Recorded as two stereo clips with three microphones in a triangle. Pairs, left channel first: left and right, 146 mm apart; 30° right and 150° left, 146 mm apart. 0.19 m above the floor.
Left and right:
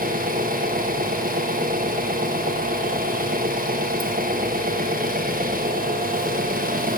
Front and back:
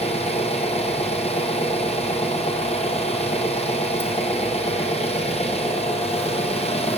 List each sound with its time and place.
0.0 s an engine running: 75° right, 1.8 m